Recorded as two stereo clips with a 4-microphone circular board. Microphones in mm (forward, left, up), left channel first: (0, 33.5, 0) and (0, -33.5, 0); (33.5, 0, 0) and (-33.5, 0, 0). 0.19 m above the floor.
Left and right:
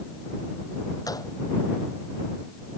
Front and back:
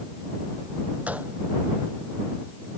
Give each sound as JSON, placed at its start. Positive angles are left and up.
{"t": 1.1, "sound": "a gunshot", "azimuth_deg": 110}